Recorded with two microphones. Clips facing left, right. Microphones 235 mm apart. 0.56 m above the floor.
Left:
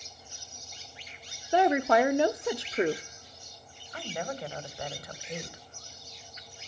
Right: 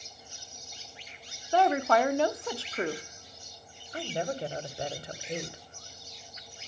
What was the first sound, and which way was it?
A woman speaking, 20° left (ahead or behind).